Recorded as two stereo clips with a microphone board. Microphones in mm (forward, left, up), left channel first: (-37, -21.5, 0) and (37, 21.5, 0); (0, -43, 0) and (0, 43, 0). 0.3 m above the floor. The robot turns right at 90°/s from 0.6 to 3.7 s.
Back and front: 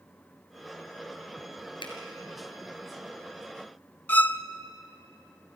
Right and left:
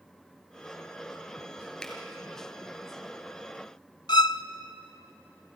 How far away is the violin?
About 0.5 m.